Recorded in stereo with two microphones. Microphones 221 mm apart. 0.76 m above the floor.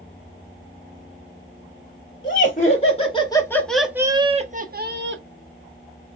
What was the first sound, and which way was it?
Laughter, 40° left (ahead or behind).